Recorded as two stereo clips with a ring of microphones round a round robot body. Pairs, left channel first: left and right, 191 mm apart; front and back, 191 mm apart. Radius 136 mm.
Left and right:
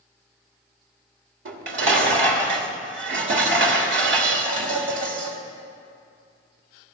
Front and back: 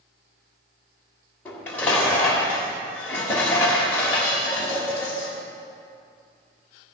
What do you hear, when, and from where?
1.4 s dishes clattering: 85° right, 1.3 m